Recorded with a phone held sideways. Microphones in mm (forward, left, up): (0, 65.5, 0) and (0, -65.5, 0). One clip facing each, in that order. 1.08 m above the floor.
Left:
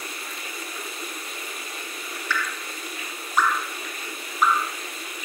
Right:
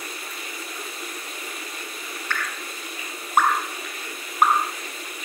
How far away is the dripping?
About 0.7 m.